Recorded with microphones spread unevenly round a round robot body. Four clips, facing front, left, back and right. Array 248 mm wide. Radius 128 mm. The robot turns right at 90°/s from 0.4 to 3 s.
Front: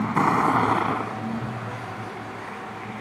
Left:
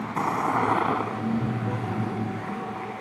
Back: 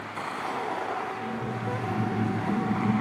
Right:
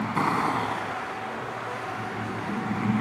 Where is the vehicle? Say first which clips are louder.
Right 1 dB, front 13 dB; 10° right; by 3.0 s 135° right.